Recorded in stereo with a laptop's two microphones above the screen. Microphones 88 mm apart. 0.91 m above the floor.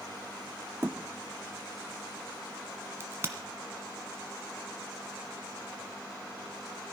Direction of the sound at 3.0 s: 30° right (ahead or behind).